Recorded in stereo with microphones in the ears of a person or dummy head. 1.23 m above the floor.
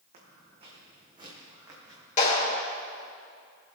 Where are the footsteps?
35° right (ahead or behind), 3 m; by 2.1 s 15° right (ahead or behind), 3.5 m.